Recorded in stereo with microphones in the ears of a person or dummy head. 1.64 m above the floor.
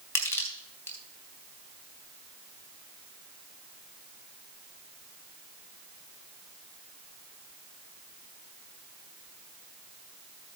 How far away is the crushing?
About 3 m.